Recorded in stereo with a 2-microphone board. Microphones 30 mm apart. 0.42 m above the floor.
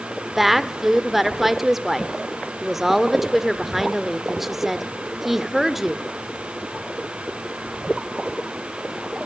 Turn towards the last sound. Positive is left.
turn(degrees=-10)  # may be behind; listen again after turning